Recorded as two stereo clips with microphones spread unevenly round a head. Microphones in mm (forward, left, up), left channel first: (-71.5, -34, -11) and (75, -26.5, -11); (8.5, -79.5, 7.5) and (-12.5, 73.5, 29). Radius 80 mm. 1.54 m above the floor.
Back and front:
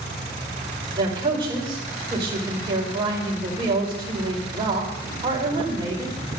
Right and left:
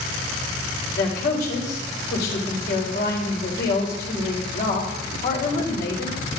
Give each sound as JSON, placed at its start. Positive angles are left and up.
{"t": 0.9, "sound": "a man speaking", "azimuth_deg": -55, "distance_m": 4.5}